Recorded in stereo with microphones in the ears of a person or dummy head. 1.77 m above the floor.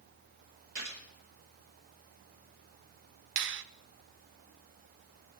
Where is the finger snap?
60° right (ahead or behind), 0.7 m.